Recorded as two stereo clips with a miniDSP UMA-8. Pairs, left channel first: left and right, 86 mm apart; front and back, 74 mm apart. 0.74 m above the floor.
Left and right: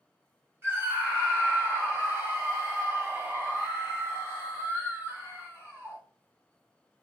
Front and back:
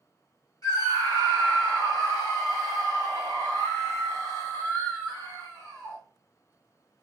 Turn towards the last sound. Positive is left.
turn(degrees=-30)